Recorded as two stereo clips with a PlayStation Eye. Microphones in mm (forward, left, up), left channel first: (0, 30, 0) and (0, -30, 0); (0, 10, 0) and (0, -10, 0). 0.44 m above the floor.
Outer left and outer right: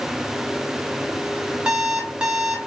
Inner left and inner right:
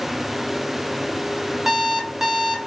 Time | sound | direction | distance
1.7 | an alarm clock | 15° right (ahead or behind) | 0.8 m